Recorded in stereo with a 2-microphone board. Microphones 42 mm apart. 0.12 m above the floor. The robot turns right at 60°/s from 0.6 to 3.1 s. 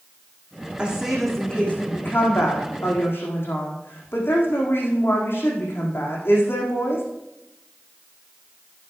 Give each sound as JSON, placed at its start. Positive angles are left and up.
{"t": 0.8, "sound": "a woman speaking", "azimuth_deg": -25, "distance_m": 5.5}